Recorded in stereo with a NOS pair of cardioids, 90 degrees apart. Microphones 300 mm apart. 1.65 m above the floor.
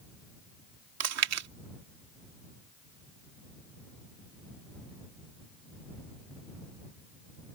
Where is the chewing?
65° right.